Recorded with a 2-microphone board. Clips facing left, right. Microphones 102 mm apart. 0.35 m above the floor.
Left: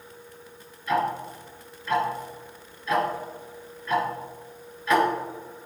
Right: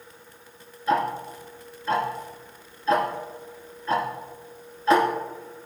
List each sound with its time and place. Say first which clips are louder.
0.9 s ticking: right 1 dB; 35° right (ahead or behind), 1.1 m